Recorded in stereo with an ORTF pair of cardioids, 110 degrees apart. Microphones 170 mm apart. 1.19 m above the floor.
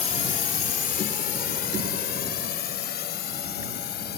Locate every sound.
0.0 s a drone: 45° left; by 4.2 s 65° left